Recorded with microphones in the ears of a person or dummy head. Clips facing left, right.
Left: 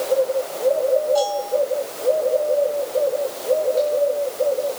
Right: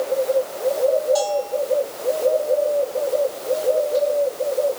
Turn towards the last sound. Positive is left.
turn(degrees=-65)  # may be behind; listen again after turning